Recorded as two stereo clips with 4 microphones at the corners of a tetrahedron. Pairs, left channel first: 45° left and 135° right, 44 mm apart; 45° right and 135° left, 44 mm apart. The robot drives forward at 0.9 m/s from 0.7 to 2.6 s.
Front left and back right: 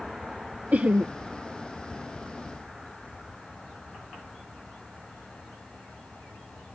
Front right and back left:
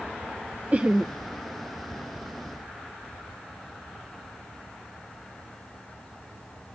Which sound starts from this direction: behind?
Laughter, at 0.7 s.